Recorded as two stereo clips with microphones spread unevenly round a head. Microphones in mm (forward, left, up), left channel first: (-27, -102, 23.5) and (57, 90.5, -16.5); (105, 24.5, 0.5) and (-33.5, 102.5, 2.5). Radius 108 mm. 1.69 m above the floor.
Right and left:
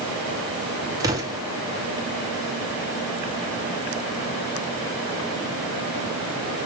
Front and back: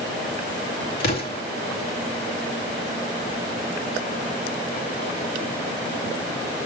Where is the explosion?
10° right, 2.5 m.